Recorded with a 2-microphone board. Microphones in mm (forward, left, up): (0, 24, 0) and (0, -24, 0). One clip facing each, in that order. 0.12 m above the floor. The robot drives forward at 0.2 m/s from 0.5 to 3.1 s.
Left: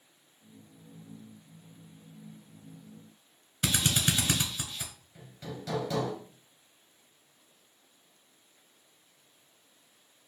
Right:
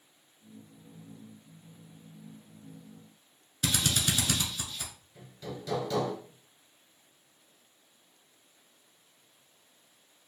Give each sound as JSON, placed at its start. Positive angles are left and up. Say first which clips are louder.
{"t": 3.6, "sound": "a drill", "louder": "left 1 dB", "side_deg": 25, "distance_m": 0.9}
{"t": 5.2, "sound": "hammering", "louder": "right 1 dB", "side_deg": 15, "distance_m": 2.0}